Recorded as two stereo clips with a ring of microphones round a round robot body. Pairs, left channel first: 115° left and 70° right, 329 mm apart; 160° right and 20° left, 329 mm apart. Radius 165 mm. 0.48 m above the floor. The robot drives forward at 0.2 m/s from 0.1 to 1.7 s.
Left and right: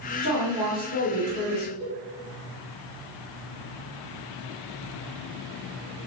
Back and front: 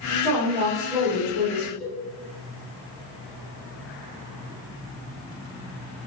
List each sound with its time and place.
0.2 s a woman speaking: 130° left, 1.7 m; by 1.7 s 135° left, 1.9 m
1.8 s a cowbell: 120° left, 1.9 m